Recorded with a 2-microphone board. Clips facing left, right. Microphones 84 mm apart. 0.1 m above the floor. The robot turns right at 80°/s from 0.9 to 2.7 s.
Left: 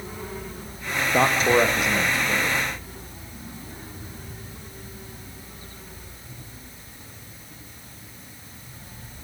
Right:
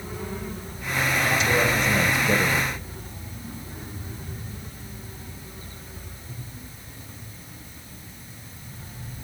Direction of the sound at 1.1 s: 115° left.